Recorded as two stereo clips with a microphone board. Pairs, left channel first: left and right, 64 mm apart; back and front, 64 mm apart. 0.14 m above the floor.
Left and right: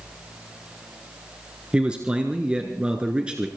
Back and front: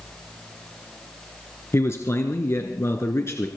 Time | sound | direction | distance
1.7 | a man speaking | 160° right | 1.5 m